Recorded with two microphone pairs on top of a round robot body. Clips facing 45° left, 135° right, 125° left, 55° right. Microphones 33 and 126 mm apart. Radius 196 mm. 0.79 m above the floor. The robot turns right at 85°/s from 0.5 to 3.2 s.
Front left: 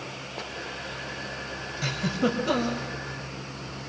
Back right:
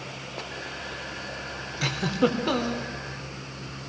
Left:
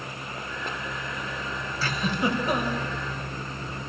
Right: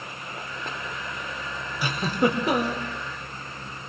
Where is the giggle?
130° right, 4 m; by 2.9 s 40° right, 4 m.